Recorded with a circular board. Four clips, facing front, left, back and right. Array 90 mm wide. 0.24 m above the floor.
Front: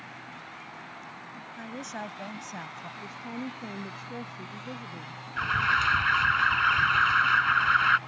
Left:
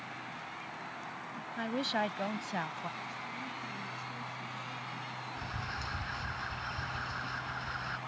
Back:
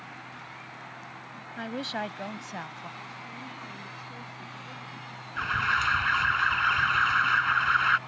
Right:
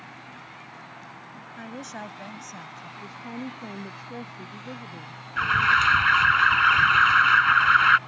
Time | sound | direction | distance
1.6 | a woman speaking | 155° left | ?
3.0 | a woman speaking | 55° right | ?
5.4 | an alarm | 85° right | ?